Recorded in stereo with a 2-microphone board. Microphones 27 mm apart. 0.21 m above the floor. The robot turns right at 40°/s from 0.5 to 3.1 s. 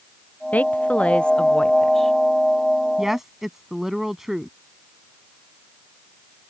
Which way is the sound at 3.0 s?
15° right (ahead or behind).